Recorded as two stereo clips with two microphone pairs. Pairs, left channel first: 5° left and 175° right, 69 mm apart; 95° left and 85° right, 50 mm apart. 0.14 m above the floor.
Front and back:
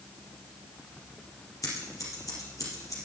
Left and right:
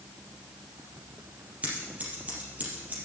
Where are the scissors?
25° right, 4 m.